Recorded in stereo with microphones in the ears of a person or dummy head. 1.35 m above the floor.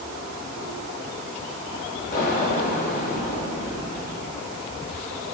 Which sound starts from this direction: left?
An explosion, at 2.1 s.